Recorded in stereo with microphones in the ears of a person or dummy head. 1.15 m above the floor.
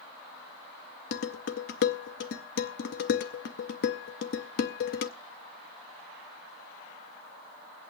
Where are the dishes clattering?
60° left (ahead or behind), 0.7 m.